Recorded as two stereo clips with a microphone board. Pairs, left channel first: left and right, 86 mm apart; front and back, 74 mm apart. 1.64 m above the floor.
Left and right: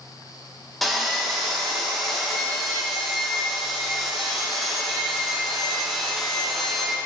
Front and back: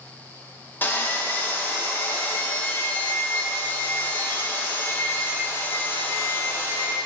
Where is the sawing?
5° left, 0.8 m.